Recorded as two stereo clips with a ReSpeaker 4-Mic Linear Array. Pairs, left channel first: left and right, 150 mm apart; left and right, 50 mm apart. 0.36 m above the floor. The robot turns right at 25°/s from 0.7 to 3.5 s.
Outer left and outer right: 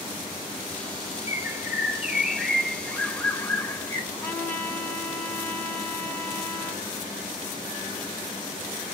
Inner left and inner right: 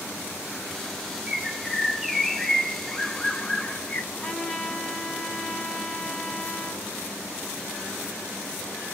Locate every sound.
1.3 s a bird: 30° right, 1.4 m; by 4.0 s 25° left, 1.4 m
4.1 s a trumpet: 15° left (ahead or behind), 3 m